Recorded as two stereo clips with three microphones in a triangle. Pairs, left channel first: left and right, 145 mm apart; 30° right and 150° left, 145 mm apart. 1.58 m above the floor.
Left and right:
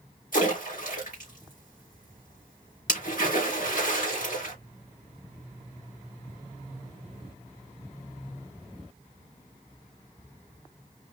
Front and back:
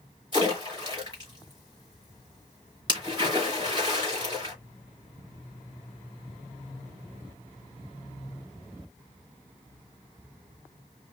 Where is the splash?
95° left, 3.5 m.